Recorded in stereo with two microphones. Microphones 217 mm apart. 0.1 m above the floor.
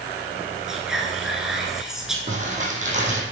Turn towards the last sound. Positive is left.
turn(degrees=-35)  # may be behind; listen again after turning